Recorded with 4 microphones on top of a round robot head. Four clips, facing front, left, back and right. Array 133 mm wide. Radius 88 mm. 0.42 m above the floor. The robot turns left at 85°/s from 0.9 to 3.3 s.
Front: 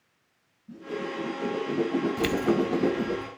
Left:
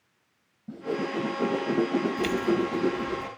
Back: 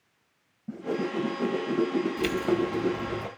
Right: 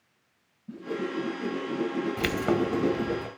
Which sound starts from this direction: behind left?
A whoosh, at 0.7 s.